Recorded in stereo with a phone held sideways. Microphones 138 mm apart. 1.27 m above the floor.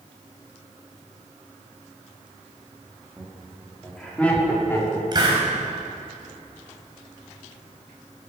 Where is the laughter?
5° right (ahead or behind), 3 m; by 5.0 s 20° left (ahead or behind), 4 m.